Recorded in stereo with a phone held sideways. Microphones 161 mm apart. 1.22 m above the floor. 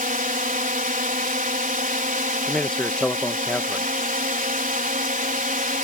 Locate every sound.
0.0 s a drone: 60° right (ahead or behind)
2.5 s a man speaking: 5° left (ahead or behind)